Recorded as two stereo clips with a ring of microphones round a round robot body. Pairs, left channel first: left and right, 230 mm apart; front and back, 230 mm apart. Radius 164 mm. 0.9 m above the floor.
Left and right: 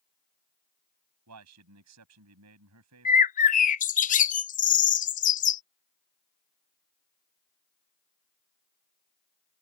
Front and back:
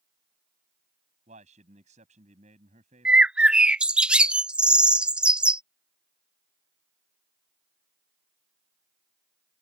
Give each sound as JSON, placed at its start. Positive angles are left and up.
{"t": 1.3, "sound": "a man speaking", "azimuth_deg": -110}
{"t": 3.0, "sound": "a bird", "azimuth_deg": 95}